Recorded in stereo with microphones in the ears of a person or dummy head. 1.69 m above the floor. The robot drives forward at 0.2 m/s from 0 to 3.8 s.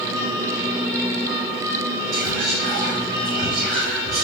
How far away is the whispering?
About 1.5 m.